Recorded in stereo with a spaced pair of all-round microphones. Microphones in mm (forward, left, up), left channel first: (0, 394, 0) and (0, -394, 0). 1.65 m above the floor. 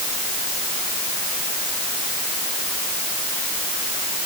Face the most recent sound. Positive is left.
No sound to turn to.